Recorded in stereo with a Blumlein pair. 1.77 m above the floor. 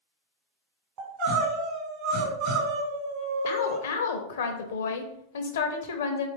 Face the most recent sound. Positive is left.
turn(degrees=60)